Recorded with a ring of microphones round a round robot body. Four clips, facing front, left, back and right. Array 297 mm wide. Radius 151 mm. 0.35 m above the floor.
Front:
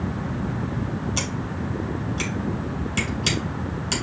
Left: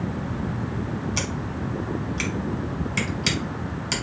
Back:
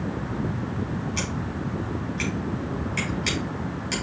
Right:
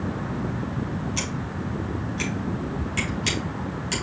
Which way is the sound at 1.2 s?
40° left.